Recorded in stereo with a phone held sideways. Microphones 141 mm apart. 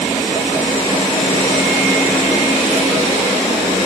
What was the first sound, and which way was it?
Only background noise.